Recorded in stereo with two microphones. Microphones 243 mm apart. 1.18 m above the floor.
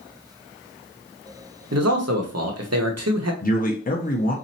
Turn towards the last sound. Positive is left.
turn(degrees=35)  # may be behind; listen again after turning